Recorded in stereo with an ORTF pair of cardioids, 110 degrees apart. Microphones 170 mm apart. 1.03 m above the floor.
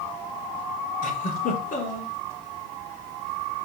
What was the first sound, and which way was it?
A giggle, 55° left.